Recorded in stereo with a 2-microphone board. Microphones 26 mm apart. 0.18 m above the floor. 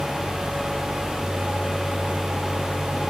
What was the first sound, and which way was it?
Only background noise.